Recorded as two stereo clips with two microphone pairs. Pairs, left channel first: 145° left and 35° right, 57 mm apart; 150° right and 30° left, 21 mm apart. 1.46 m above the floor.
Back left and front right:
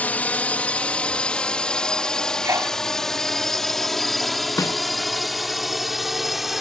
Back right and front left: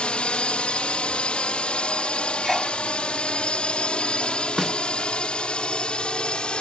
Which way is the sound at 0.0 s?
155° right.